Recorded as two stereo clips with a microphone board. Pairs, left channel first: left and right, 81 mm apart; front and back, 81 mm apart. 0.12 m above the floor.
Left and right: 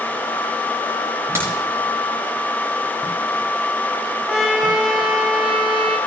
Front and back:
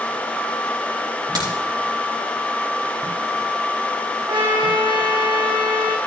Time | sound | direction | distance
1.4 | a crack | 145° right | 4.5 m
4.3 | a trumpet | straight behind | 2.5 m